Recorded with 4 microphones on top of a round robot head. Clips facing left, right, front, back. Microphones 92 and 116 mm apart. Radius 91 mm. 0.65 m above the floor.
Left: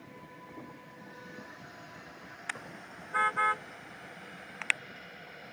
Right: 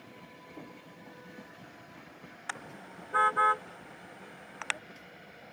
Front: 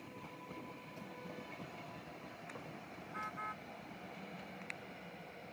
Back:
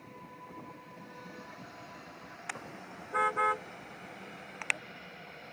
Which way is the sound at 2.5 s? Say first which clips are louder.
Right 1 dB, back 9 dB; 150° right.